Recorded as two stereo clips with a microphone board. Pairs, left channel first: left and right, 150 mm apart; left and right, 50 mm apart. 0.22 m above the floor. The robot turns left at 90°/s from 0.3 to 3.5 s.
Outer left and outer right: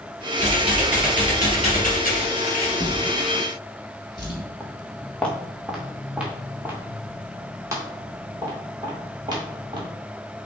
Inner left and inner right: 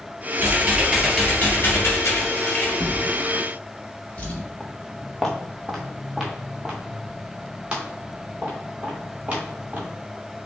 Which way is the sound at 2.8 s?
65° left (ahead or behind).